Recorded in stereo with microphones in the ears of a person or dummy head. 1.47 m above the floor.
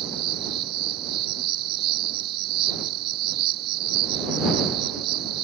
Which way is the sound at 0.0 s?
25° right (ahead or behind).